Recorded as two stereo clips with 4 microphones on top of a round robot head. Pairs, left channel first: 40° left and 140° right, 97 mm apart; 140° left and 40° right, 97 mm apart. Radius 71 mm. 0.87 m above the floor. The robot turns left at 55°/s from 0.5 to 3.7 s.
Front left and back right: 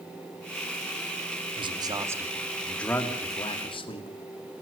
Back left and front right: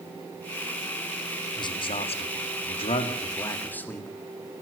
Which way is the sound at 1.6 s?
175° right.